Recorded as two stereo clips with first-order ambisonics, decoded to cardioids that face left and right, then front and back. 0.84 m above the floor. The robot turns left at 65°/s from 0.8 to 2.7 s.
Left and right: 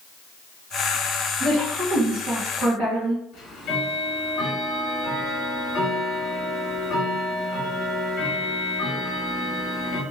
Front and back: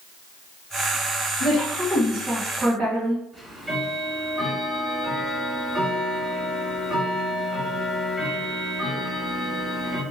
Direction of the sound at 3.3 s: 110° left.